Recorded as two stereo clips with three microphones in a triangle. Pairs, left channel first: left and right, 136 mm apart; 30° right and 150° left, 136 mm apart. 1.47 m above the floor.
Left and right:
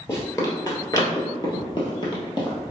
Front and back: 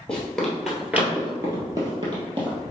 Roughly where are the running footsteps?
Ahead left.